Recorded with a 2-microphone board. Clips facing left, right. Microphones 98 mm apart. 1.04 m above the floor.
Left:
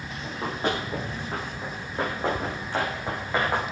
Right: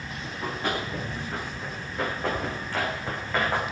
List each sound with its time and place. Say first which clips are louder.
0.2 s running footsteps: left 3 dB; 35° left (ahead or behind), 6 m; by 3.6 s 15° left (ahead or behind), 4.5 m